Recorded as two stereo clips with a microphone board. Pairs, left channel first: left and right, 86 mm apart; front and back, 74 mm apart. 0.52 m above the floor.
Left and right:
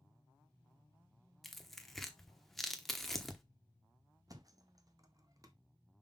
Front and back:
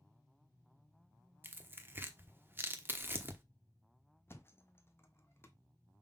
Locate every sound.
1.4 s tearing paper: 175° left, 0.9 m
4.3 s a thud: 50° right, 0.9 m